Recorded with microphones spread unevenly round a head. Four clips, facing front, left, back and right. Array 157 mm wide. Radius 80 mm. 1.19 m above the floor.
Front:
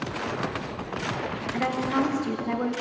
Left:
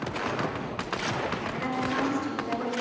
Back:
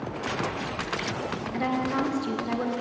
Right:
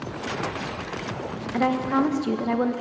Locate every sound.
1.5 s a woman speaking: 90° right, 1.1 m